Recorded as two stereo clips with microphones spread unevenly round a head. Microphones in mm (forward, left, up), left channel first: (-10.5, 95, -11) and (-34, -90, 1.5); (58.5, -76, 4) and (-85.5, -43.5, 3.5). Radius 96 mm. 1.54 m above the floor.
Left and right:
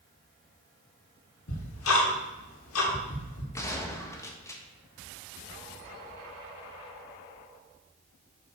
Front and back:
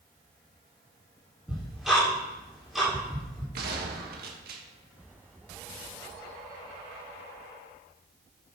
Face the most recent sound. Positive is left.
turn(degrees=160)